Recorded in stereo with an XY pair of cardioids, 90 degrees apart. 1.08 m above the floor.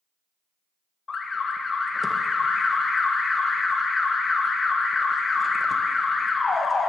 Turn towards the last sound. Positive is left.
turn(degrees=45)